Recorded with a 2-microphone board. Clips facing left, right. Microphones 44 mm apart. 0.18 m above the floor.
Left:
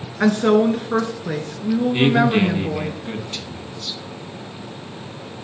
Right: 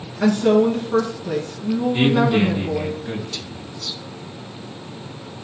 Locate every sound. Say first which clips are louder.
0.2 s a woman speaking: even; 60° left (ahead or behind), 2.5 m
1.9 s a man speaking: even; 35° left (ahead or behind), 1.9 m